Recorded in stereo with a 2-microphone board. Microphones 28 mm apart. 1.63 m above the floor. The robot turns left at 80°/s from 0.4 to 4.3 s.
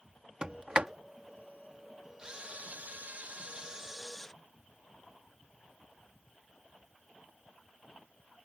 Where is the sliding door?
35° right (ahead or behind); by 0.9 s 40° right (ahead or behind).